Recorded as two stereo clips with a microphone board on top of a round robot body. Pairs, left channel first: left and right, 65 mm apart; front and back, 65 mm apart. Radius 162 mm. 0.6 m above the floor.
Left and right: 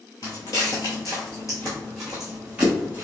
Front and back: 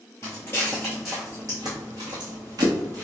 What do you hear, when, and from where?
0.2 s footsteps: 55° left, 0.8 m; by 3.0 s 160° right, 1.0 m